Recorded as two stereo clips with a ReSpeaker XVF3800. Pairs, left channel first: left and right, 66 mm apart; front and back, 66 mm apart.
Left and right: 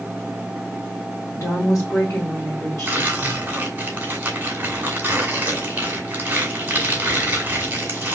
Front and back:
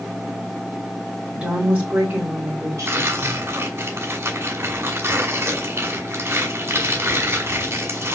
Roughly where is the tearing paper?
Behind right.